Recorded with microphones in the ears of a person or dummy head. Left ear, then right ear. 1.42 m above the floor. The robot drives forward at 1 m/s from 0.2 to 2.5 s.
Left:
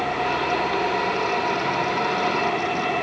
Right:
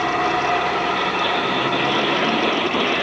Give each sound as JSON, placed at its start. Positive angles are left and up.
{"t": 0.0, "sound": "an engine running", "side_deg": -65, "distance_m": 3.0}